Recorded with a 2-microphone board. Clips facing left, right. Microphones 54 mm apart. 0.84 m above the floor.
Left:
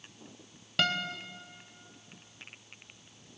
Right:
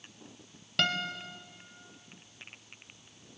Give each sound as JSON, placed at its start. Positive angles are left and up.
{"t": 0.8, "sound": "a guitar", "side_deg": 5, "distance_m": 0.7}